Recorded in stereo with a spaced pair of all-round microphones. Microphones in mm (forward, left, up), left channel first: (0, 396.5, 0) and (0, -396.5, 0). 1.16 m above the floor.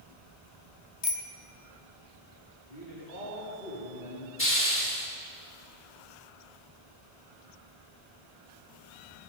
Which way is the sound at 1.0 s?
50° left (ahead or behind).